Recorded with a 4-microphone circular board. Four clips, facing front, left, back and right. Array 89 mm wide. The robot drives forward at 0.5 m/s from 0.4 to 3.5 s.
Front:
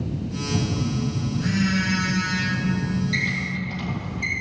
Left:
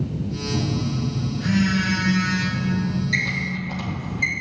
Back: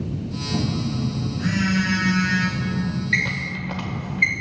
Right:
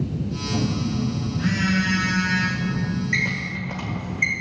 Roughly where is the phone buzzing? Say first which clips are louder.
Right 1 dB, back 1 dB; right.